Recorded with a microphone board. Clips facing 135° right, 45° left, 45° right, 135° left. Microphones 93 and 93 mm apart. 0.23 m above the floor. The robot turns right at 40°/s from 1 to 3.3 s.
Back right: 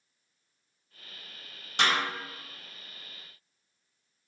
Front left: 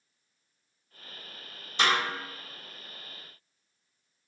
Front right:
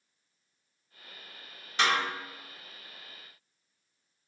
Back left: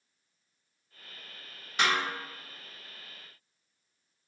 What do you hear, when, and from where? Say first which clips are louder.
1.8 s a snare drum: front left 1 dB, front right 1 dB; 140° right, 1.8 m; by 2.0 s 130° right, 1.8 m